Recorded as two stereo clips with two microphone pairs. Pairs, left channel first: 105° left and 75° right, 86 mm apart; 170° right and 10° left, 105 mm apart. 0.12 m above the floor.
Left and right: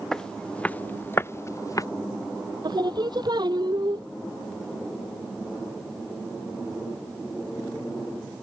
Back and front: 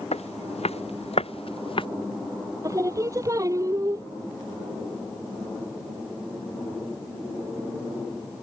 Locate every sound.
0.1 s footsteps: 170° right; by 1.9 s 155° left
2.6 s singing: 50° right